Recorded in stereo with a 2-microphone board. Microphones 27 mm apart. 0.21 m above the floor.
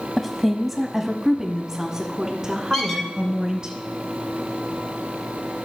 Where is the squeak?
20° left (ahead or behind), 3 m.